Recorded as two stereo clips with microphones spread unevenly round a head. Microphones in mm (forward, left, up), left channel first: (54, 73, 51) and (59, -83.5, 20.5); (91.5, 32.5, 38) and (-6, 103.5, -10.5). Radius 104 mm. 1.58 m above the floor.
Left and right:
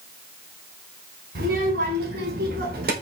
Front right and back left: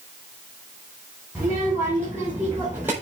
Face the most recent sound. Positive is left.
turn(degrees=-130)